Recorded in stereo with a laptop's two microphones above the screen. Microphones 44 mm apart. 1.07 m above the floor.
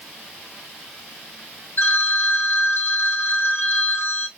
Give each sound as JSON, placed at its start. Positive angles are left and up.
{"t": 1.8, "sound": "a phone ringing", "side_deg": 55, "distance_m": 3.0}